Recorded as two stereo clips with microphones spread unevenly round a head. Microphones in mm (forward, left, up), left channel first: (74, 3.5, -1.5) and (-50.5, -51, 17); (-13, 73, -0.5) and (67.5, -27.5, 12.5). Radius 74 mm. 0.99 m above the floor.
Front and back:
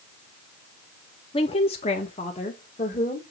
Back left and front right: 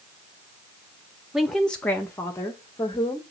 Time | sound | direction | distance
1.3 | a woman speaking | 40° left | 0.7 m